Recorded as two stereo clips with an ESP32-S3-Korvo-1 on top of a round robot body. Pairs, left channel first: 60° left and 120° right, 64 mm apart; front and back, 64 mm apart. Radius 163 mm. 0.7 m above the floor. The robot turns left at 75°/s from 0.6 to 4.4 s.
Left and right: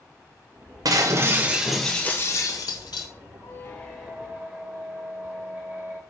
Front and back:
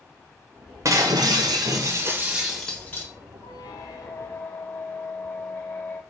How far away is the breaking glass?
About 1.0 m.